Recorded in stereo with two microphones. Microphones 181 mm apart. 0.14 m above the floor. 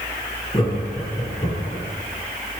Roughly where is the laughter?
Left.